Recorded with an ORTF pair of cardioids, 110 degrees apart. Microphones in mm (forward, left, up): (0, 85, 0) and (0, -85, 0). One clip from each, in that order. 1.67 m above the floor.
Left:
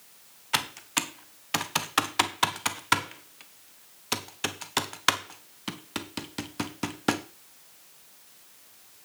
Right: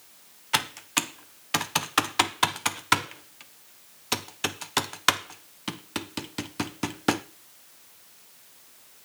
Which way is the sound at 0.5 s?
5° right.